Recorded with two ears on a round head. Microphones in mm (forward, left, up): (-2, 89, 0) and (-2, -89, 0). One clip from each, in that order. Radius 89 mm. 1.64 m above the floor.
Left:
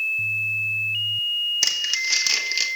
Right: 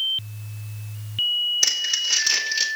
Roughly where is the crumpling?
Centre.